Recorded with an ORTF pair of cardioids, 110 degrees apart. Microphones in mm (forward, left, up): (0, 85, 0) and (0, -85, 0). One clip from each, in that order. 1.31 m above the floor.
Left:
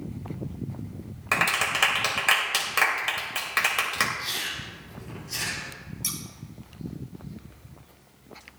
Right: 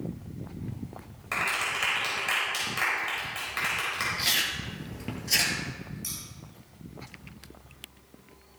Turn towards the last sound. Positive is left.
turn(degrees=50)